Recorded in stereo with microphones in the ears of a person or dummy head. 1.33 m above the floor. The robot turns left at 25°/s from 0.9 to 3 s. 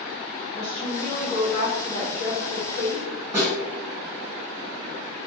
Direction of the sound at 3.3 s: 20° right (ahead or behind).